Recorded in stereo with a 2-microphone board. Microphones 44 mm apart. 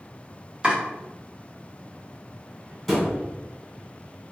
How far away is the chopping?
About 1.1 m.